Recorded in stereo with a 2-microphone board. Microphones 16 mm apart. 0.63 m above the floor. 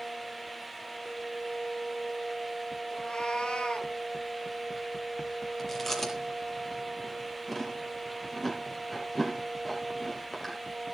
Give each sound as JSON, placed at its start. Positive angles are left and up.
{"t": 2.9, "sound": "a cat meowing", "side_deg": 75, "distance_m": 3.5}
{"t": 5.6, "sound": "chewing", "side_deg": 15, "distance_m": 8.0}